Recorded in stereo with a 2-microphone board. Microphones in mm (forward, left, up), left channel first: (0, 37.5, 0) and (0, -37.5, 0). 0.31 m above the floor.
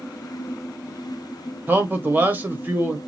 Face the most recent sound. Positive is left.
turn(degrees=-25)  # may be behind; listen again after turning